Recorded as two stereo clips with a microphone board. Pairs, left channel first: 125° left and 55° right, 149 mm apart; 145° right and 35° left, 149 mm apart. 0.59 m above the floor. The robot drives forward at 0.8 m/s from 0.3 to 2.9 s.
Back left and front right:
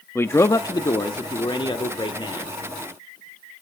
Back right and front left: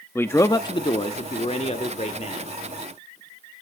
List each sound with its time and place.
0.1 s a man speaking: 165° left, 0.7 m; by 2.6 s straight behind, 2 m